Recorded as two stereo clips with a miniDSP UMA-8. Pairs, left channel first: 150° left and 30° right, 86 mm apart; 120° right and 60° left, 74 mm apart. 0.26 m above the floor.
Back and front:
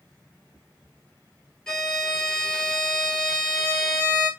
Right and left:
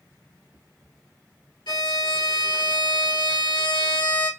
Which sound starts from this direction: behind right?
A violin, at 1.7 s.